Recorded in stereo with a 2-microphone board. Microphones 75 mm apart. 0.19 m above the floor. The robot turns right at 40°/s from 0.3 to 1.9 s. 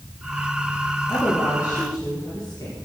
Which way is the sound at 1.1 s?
15° left.